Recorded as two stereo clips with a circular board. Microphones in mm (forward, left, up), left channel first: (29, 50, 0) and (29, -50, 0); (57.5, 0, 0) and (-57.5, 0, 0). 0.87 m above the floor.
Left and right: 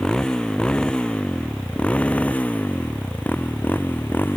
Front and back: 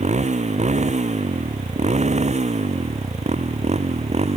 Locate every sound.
0.0 s a motorcycle: 175° left; by 4.4 s 160° left